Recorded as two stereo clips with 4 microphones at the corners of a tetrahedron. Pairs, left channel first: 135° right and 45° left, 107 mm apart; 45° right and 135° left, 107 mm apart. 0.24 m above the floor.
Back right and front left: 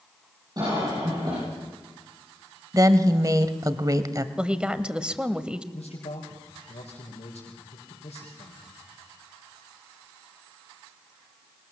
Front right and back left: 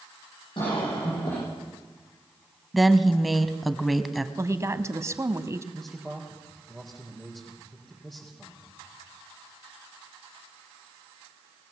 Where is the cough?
5° right, 9 m.